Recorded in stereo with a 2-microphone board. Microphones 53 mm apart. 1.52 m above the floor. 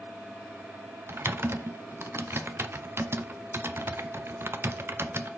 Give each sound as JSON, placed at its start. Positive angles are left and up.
{"t": 1.1, "sound": "typing on a keyboard", "side_deg": -45, "distance_m": 0.6}